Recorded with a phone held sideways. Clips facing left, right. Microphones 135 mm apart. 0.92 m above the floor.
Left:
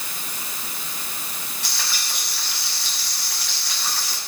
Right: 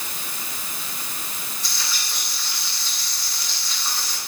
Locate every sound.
1.6 s frying: 75° left (ahead or behind), 7 m